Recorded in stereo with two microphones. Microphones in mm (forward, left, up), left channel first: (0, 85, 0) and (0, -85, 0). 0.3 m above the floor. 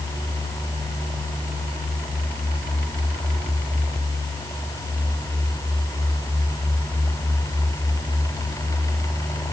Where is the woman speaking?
No woman speaking in this recording.